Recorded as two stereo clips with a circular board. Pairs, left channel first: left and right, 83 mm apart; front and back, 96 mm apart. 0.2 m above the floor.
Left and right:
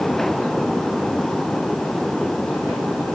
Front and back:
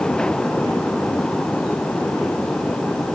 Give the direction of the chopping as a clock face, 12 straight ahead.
No chopping in this recording.